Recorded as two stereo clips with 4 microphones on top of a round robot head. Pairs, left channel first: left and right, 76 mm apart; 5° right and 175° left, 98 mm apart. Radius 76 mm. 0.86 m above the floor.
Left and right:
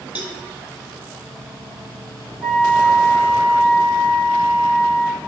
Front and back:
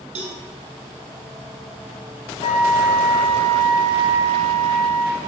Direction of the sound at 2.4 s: 5° right.